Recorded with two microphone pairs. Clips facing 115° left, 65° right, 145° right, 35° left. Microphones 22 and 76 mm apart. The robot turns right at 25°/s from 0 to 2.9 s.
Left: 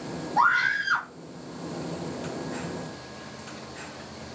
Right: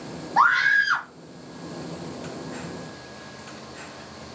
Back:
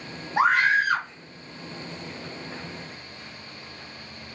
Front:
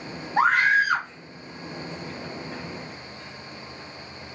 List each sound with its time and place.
0.4 s a scream: 60° right, 1.7 m; by 1.1 s 40° right, 1.7 m